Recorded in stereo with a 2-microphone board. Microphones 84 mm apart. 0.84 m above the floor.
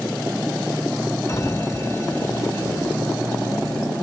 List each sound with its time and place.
1.3 s a sliding door: 35° left (ahead or behind), 0.8 m